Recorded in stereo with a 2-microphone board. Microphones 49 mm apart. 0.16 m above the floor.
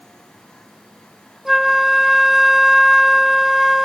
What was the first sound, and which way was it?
A flute, 5° right (ahead or behind).